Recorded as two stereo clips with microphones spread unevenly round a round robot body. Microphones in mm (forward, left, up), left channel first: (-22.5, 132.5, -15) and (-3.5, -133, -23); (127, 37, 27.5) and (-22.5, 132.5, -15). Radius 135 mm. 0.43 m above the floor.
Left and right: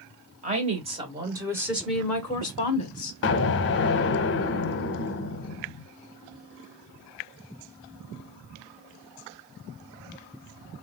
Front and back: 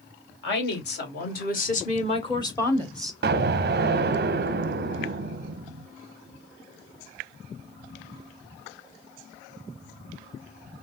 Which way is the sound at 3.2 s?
140° left.